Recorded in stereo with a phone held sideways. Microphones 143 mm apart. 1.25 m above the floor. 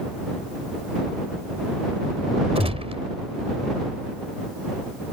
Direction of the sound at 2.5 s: 45° right (ahead or behind).